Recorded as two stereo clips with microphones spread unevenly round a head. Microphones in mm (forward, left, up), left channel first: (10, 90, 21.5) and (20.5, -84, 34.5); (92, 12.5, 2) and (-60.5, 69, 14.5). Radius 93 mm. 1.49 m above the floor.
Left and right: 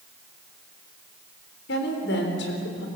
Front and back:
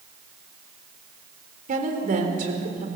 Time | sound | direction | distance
1.7 | a woman speaking | 125° left | 4 m